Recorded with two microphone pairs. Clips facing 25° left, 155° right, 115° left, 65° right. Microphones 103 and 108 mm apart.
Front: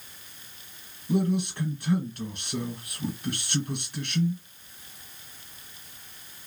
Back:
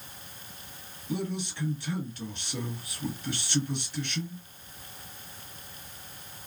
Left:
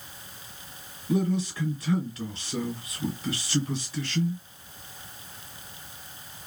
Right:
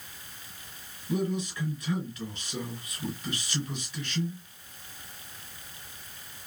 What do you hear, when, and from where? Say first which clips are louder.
1.1 s a man speaking: front 7 dB, left 4 dB; 60° left, 2.5 m